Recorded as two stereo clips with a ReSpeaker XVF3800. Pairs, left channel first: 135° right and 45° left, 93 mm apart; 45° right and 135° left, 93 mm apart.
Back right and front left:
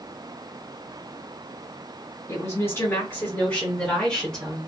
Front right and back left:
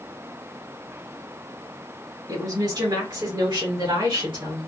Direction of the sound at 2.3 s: 175° left.